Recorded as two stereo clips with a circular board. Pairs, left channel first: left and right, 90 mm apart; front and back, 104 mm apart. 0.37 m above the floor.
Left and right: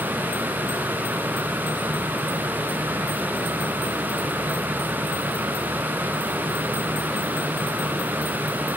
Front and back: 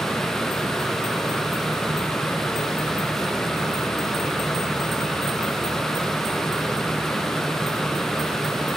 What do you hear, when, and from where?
Only background noise.